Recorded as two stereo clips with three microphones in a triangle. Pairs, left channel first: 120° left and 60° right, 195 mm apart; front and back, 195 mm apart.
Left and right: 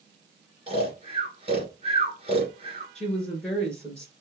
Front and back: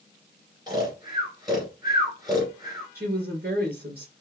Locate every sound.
0.7 s snoring: 115° right, 2.0 m
3.0 s a woman speaking: 155° right, 2.5 m